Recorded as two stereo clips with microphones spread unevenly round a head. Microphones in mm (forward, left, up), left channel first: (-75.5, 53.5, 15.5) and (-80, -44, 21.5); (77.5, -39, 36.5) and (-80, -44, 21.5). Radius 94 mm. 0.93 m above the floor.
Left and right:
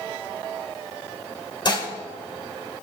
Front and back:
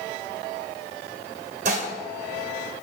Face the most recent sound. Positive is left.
turn(degrees=130)